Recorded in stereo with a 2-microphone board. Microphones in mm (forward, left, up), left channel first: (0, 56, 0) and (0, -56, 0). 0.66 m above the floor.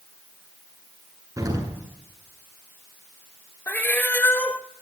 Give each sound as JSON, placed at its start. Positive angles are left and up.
{"t": 1.4, "sound": "an explosion", "side_deg": -30, "distance_m": 8.0}
{"t": 3.7, "sound": "a cat meowing", "side_deg": 15, "distance_m": 1.2}